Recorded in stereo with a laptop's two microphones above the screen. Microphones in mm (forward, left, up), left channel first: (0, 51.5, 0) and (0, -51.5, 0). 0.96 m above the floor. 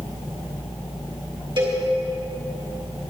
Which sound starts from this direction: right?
A cowbell, at 1.6 s.